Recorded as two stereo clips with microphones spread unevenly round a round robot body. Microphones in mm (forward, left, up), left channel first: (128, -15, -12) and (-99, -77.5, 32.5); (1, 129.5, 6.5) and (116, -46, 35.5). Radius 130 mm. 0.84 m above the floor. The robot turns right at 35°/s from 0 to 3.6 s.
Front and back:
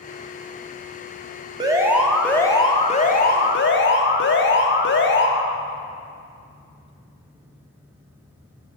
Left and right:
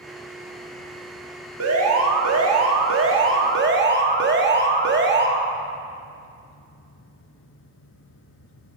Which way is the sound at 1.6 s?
90° right.